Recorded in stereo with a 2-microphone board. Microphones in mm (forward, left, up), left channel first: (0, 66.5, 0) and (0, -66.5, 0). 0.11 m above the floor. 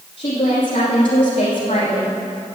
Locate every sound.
0.2 s a woman speaking: 45° left (ahead or behind), 4.5 m